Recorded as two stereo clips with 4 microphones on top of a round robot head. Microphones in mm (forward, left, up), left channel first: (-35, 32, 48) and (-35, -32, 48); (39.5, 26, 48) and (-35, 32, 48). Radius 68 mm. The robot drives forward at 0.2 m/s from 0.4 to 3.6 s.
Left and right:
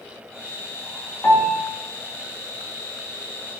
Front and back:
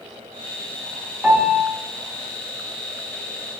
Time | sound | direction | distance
1.2 | a piano | 120° left | 0.7 m